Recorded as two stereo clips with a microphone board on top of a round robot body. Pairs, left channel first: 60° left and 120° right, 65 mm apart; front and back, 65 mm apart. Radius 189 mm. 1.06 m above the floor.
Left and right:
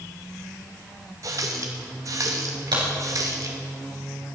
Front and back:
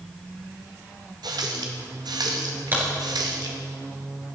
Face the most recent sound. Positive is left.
turn(degrees=-120)